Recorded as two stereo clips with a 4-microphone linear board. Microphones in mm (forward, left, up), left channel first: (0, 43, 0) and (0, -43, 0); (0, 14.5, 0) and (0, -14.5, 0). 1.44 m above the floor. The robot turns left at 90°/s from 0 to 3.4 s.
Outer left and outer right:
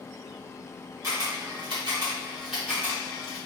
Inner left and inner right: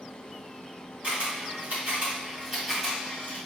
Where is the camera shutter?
40° right (ahead or behind), 3 m; by 3.4 s 65° left (ahead or behind), 3 m.